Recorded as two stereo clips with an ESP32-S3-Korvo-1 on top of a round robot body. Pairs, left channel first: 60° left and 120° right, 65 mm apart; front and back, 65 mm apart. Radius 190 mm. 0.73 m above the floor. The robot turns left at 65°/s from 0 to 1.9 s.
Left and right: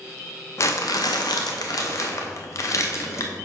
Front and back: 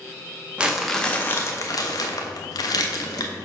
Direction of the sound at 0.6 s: 105° left.